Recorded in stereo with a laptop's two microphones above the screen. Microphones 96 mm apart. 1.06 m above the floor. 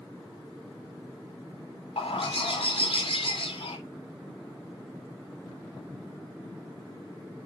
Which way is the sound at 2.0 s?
85° left.